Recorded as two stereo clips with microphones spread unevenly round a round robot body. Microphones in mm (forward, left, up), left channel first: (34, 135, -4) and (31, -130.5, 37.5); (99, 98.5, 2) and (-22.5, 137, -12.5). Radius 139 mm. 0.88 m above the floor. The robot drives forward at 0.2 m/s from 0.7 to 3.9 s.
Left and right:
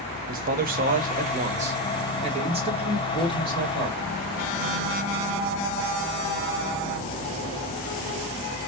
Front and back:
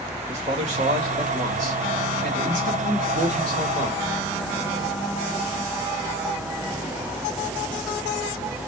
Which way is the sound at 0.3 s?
155° right.